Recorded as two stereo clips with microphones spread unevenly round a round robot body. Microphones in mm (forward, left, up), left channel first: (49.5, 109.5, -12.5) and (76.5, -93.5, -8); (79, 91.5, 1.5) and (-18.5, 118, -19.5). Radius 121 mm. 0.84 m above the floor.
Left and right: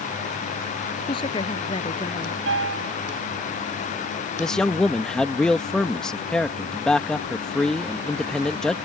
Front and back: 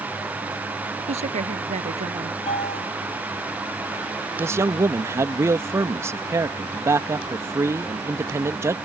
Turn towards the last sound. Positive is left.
turn(degrees=180)